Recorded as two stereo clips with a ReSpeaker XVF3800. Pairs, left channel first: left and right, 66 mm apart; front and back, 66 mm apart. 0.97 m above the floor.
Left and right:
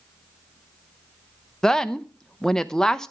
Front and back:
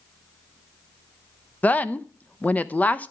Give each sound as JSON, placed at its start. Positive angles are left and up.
{"t": 1.6, "sound": "a woman speaking", "azimuth_deg": 20, "distance_m": 0.5}